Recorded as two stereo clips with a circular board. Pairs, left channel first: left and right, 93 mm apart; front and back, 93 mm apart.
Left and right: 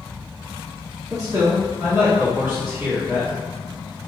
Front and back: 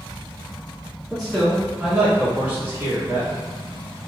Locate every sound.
1.1 s a man speaking: 80° right, 1.6 m; by 3.3 s 150° right, 1.6 m